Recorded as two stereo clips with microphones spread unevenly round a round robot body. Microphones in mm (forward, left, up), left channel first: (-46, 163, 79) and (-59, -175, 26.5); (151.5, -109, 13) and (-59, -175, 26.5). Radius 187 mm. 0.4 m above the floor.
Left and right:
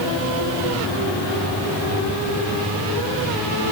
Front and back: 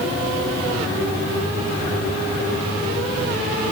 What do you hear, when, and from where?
Only background noise.